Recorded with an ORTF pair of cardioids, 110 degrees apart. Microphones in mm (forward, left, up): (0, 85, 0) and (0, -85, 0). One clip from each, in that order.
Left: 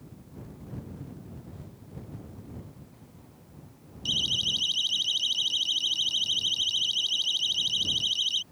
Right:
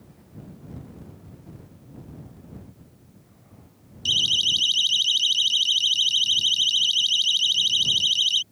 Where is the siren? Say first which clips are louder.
Right 6 dB; 40° right.